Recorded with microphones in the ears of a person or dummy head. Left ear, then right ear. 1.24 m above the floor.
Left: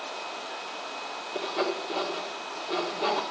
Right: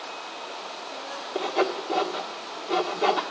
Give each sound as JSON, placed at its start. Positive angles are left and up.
{"t": 1.4, "sound": "sawing", "side_deg": -10, "distance_m": 1.5}